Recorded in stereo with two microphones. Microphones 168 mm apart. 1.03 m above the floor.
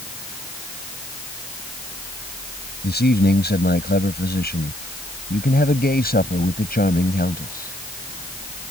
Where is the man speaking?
85° left; by 7.8 s 65° left (ahead or behind).